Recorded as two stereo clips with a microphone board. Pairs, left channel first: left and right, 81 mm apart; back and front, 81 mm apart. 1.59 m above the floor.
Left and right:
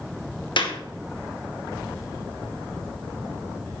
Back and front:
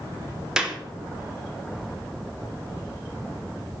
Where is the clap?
80° left, 2 m.